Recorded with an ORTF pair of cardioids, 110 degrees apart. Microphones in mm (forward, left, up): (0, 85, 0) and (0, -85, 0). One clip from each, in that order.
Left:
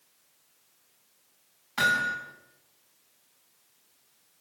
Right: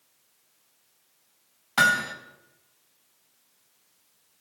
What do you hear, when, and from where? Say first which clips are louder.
1.8 s hammering: right 3 dB; 60° right, 4.5 m